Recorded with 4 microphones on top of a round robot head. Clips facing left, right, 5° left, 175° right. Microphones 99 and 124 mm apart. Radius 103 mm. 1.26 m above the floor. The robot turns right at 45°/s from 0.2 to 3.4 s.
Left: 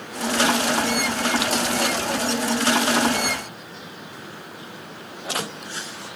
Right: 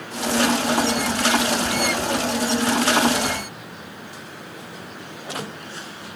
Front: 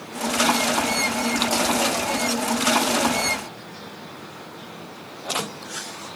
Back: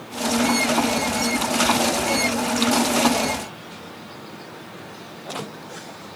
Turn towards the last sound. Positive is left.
No sound to turn to.